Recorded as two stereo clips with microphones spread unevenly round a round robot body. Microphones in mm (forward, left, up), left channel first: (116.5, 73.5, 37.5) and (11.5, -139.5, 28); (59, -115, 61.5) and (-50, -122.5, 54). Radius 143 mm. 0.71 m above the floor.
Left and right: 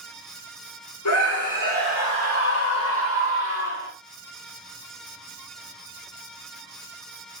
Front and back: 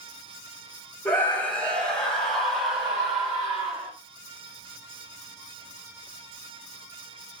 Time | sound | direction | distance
1.1 | a scream | 80° left | 1.9 m